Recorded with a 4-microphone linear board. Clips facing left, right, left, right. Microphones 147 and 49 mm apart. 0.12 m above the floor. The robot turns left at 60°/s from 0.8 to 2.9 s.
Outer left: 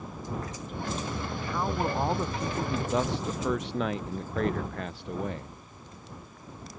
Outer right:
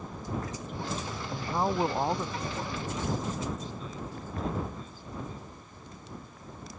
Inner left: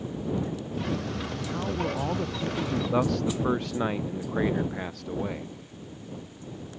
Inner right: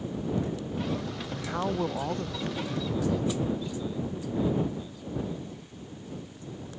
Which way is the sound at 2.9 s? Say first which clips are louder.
Outer left 3 dB, inner left 2 dB; 75° left (ahead or behind).